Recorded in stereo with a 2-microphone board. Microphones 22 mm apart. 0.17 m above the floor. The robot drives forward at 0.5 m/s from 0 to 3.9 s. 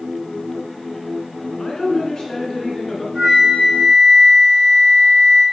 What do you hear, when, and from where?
1.6 s a woman speaking: 30° left (ahead or behind), 1.8 m; by 3.0 s 25° left (ahead or behind), 2 m
3.1 s a flute: 65° right (ahead or behind), 2.5 m; by 5.4 s 55° right (ahead or behind), 3 m